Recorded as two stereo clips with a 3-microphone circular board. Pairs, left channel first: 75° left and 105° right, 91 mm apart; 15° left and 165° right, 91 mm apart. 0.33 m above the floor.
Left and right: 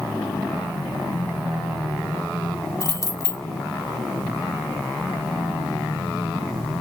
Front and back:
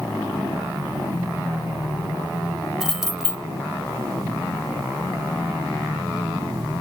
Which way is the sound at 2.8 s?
110° left.